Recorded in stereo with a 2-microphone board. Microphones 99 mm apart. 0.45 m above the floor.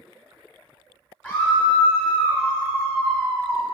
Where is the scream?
20° left (ahead or behind), 1.4 m.